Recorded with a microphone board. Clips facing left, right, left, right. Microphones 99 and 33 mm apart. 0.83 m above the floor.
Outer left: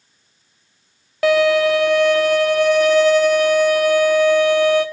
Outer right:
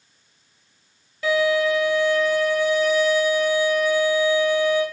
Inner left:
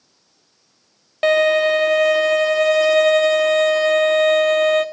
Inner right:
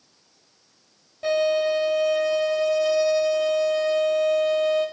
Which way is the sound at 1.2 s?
85° left.